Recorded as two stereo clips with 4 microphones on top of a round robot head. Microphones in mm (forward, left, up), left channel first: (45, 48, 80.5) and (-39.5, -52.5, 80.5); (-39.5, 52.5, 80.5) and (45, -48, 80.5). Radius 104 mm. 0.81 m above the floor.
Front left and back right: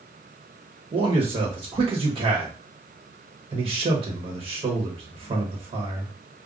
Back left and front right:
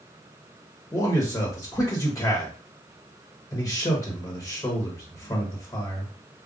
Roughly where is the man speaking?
Behind.